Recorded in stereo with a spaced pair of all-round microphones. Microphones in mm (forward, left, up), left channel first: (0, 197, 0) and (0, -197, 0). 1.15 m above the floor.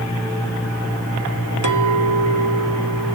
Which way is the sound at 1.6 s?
50° right (ahead or behind).